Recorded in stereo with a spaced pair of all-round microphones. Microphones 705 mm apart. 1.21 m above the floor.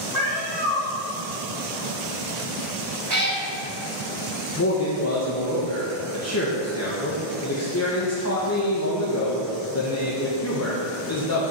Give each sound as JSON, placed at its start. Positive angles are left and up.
{"t": 0.1, "sound": "a cat meowing", "side_deg": 70, "distance_m": 3.0}
{"t": 3.1, "sound": "a cat meowing", "side_deg": -25, "distance_m": 2.0}
{"t": 4.6, "sound": "a man speaking", "side_deg": 20, "distance_m": 1.0}